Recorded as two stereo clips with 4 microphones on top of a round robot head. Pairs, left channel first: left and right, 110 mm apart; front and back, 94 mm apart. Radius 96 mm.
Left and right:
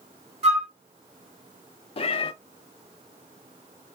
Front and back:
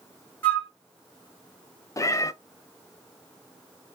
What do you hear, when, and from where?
0.4 s a flute: 75° right, 1.5 m
2.0 s a cat meowing: 55° left, 0.5 m